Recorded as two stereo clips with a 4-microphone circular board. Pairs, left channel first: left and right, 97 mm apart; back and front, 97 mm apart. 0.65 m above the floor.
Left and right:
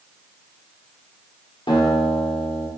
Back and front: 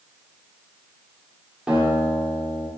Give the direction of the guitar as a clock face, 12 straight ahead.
9 o'clock.